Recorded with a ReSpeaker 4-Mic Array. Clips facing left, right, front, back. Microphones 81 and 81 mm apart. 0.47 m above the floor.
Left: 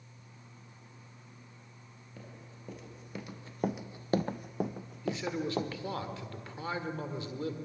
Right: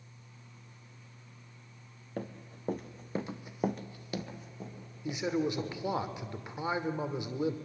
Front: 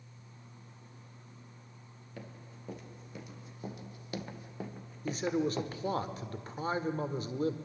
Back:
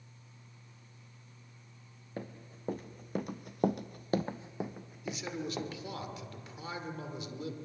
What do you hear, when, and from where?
2.2 s running footsteps: 125° right, 2.5 m; by 6.0 s 85° left, 3 m
5.0 s a man speaking: 25° right, 1.6 m